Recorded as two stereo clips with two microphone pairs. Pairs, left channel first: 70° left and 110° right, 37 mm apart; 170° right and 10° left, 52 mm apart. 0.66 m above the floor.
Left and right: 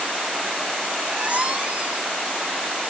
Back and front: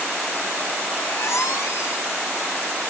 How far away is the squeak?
About 3 m.